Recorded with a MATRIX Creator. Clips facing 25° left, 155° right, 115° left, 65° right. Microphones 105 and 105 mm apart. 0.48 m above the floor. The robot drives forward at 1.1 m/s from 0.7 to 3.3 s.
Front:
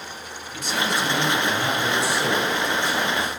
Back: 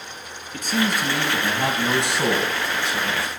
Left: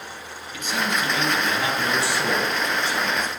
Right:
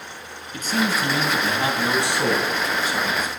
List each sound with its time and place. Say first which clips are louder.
0.5 s a man speaking: back 2 dB, right 3 dB; 115° right, 3 m; by 3.3 s 150° right, 5 m